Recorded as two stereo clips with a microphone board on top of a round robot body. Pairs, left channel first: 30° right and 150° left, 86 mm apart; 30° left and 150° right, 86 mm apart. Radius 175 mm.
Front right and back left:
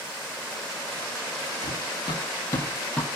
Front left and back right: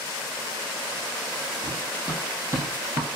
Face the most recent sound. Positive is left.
turn(degrees=-110)